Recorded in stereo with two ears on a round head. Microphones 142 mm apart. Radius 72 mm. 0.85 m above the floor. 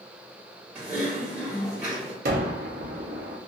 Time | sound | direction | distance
0.8 | typing on a keyboard | 10° right (ahead or behind) | 1.3 m
2.2 | a gunshot | 55° right (ahead or behind) | 0.7 m